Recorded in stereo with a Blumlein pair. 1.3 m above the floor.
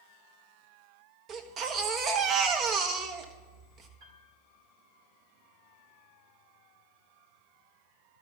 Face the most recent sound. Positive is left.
turn(degrees=-50)